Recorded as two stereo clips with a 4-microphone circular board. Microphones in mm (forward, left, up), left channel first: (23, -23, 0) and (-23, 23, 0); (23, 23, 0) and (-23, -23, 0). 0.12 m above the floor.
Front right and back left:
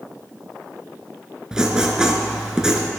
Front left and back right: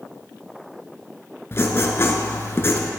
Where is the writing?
60° left, 0.6 m.